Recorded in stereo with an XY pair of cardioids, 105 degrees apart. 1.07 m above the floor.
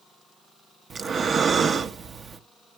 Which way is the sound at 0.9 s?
45° right.